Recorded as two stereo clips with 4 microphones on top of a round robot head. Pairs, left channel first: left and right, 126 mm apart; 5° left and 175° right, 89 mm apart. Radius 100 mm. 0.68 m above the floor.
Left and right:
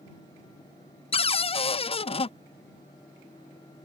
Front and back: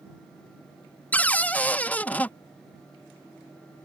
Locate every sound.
1.1 s a cupboard door: 70° left